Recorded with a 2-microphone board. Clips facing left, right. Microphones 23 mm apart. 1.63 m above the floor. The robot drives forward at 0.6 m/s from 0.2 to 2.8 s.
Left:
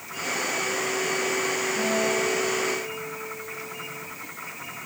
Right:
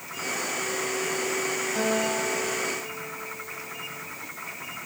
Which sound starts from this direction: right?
A guitar, at 1.8 s.